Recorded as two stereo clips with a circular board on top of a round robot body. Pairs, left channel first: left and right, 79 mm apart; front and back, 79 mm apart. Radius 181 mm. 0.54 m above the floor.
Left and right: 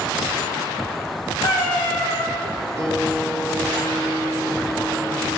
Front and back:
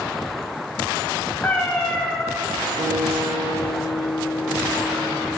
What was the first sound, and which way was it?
A cat meowing, 65° left.